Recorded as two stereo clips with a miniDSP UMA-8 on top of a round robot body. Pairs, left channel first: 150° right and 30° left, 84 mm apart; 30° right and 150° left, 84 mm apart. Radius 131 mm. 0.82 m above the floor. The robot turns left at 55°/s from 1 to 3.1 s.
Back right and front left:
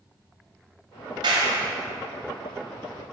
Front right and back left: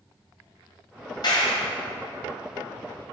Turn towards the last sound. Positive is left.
turn(degrees=-95)